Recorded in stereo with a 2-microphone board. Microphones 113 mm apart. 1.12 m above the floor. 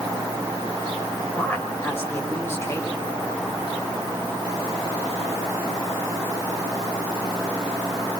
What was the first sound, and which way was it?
A woman speaking, 15° left (ahead or behind).